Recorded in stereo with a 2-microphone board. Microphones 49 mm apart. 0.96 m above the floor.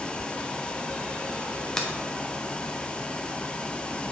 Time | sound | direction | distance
1.8 | a finger snap | 15° left (ahead or behind) | 1.2 m